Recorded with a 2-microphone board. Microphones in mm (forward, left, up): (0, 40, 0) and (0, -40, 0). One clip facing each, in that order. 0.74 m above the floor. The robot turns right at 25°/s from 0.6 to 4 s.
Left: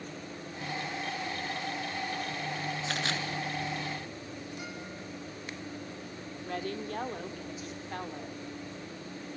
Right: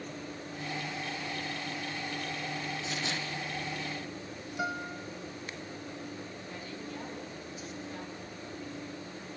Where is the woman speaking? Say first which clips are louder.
Left 6 dB; 65° left (ahead or behind), 1.8 m.